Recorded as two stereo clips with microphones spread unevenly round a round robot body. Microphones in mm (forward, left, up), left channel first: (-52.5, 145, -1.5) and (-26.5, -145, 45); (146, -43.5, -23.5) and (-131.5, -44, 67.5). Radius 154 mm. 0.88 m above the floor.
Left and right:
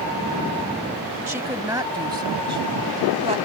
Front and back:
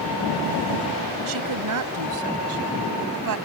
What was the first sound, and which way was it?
A woman speaking, 165° right.